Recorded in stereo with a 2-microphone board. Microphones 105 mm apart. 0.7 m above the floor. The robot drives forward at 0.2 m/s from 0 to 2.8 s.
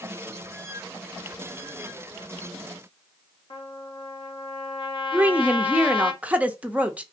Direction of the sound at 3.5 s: 55° left (ahead or behind).